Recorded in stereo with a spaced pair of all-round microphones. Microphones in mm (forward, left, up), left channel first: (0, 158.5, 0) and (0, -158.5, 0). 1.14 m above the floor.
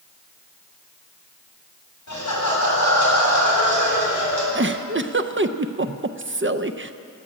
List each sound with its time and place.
2.1 s laughter: 60° left (ahead or behind), 7 m
4.5 s a giggle: 40° right (ahead or behind), 0.5 m